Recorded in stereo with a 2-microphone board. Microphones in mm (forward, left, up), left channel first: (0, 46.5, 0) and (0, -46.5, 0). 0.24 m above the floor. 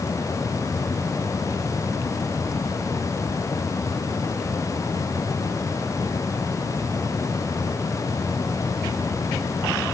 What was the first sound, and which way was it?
Only background noise.